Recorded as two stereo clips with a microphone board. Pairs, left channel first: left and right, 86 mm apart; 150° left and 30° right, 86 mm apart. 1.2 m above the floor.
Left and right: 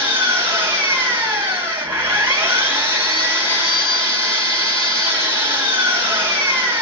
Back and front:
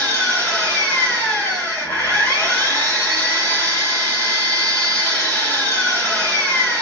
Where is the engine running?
150° right, 2 m.